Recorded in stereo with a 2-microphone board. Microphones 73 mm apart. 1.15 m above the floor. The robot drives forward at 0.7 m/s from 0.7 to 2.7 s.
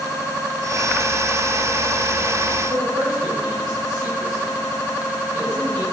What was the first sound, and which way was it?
A man speaking, 70° right (ahead or behind).